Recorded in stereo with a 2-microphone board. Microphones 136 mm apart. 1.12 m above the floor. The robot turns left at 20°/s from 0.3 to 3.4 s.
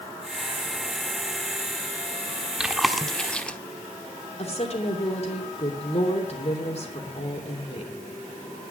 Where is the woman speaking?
50° left (ahead or behind), 3 m.